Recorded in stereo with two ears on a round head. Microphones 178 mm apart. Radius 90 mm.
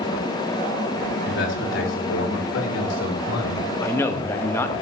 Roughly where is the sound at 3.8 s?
Centre.